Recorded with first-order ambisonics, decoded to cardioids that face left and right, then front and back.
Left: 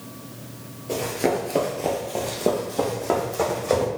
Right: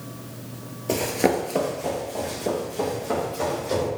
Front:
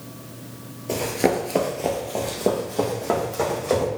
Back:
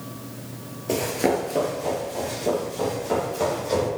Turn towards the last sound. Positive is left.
turn(degrees=45)